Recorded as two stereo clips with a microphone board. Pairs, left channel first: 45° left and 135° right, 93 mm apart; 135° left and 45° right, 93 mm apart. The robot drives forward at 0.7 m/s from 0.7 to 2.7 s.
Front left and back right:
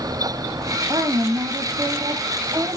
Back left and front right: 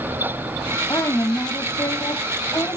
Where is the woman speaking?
Straight behind, 1.8 m.